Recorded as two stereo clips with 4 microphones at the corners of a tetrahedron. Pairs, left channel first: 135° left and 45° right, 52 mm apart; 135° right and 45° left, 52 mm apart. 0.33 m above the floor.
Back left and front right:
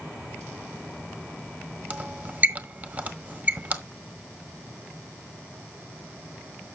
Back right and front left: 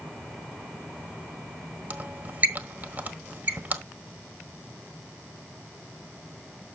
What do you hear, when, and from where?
1.9 s a squeak: straight ahead, 1.3 m